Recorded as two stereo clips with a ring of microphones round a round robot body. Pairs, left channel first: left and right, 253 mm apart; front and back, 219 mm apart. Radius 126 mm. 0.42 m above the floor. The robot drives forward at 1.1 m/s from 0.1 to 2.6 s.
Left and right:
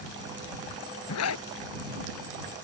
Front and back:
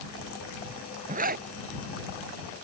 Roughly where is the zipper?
Behind left.